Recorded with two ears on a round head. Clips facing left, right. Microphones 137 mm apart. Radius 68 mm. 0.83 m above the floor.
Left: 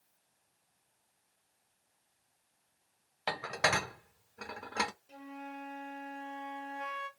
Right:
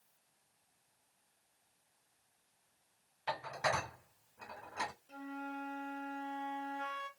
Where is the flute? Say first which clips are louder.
Right 1 dB; 10° left (ahead or behind), 0.8 m.